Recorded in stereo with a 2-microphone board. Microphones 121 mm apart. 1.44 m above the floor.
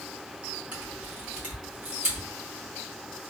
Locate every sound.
0.7 s a camera shutter: 15° right (ahead or behind), 1.7 m